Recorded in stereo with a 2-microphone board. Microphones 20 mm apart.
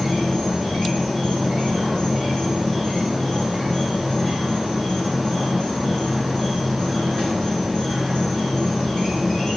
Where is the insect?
20° left (ahead or behind), 4.5 m.